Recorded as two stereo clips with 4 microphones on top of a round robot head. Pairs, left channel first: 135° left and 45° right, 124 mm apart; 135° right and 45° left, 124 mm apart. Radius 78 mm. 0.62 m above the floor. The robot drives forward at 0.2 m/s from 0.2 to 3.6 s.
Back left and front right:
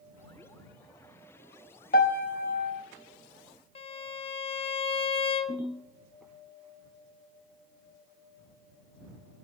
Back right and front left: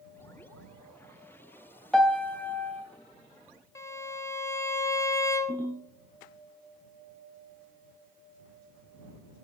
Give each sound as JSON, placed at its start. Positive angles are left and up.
{"t": 1.9, "sound": "a piano", "azimuth_deg": 140, "distance_m": 0.6}
{"t": 3.8, "sound": "a violin", "azimuth_deg": 165, "distance_m": 0.6}
{"t": 5.5, "sound": "a ringtone", "azimuth_deg": -55, "distance_m": 3.0}